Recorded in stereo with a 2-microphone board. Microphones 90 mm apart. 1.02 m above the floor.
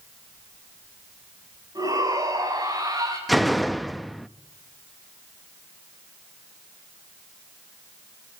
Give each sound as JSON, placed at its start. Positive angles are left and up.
{"t": 1.8, "sound": "a shout", "side_deg": -40, "distance_m": 7.5}
{"t": 3.3, "sound": "a door slam", "side_deg": 0, "distance_m": 0.5}